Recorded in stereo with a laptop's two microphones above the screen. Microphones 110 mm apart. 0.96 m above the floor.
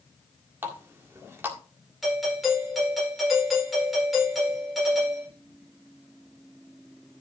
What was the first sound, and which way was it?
A running tap, 20° right (ahead or behind).